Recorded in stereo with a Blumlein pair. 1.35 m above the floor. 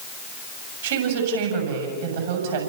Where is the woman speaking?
55° right, 7 m.